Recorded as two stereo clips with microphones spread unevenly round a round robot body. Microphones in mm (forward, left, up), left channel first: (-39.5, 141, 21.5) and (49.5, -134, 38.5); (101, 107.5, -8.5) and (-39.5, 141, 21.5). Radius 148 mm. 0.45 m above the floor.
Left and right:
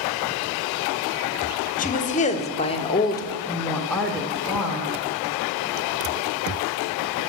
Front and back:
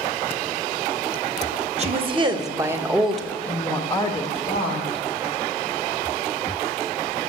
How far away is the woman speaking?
About 1.1 m.